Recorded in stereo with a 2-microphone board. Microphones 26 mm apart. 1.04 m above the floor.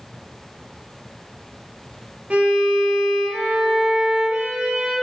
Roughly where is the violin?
Right.